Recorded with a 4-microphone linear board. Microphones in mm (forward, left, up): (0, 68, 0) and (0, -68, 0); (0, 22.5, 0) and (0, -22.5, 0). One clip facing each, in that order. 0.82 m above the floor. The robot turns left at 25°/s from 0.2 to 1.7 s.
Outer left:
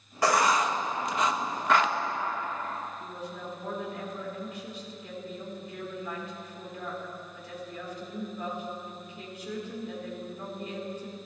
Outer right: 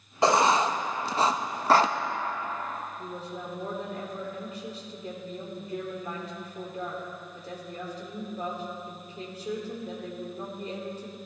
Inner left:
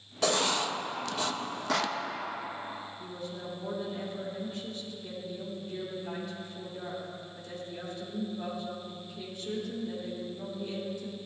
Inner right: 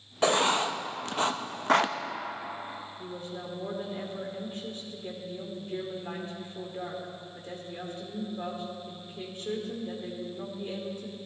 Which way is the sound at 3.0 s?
35° right (ahead or behind).